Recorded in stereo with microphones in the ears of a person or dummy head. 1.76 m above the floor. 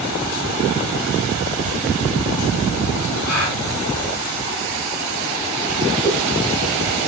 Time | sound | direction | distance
3.2 | a gasp | 60° left (ahead or behind) | 3.5 m
6.0 | a whoosh | 60° left (ahead or behind) | 4 m